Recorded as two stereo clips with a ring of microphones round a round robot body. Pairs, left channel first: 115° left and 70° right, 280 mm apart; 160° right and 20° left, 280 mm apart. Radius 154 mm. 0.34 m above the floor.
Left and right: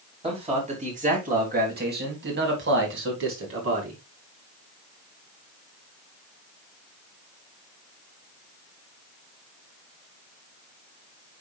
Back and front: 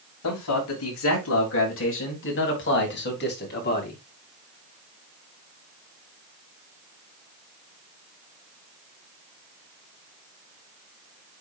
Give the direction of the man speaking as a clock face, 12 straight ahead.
5 o'clock.